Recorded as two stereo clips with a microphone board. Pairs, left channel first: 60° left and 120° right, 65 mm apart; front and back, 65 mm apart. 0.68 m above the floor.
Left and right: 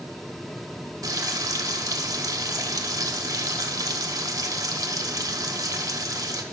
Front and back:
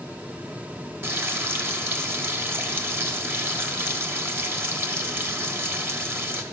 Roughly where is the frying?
Behind right.